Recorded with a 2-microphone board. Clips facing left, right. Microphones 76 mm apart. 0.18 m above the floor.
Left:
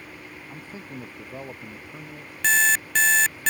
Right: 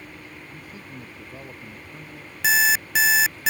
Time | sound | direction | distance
0.5 | a man speaking | 30° left (ahead or behind) | ?
2.4 | an alarm clock | 10° right (ahead or behind) | ?